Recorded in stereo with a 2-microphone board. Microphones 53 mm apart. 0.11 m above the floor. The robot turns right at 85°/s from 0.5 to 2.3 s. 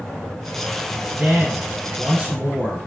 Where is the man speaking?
150° right, 1.5 m; by 2.9 s 50° right, 1.5 m.